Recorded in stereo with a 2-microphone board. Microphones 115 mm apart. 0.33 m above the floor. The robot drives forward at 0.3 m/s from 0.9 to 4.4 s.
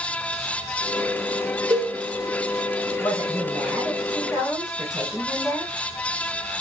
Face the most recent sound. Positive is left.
turn(degrees=0)  # may be behind; listen again after turning